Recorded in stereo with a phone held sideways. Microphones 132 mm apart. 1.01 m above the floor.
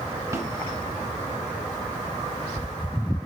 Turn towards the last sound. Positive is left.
turn(degrees=-25)  # may be behind; listen again after turning